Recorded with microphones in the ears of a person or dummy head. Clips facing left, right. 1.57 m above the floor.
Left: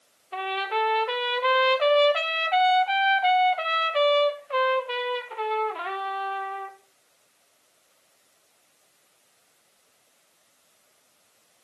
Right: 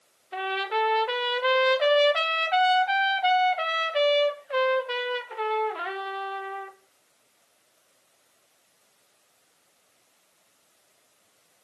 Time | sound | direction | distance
0.3 | a trumpet | 5° right (ahead or behind) | 0.9 m